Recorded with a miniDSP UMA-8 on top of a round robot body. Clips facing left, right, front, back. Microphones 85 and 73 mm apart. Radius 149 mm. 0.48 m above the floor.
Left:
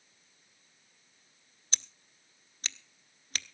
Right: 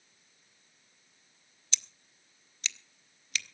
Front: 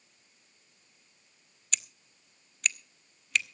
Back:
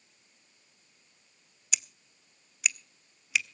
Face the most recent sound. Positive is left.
turn(degrees=100)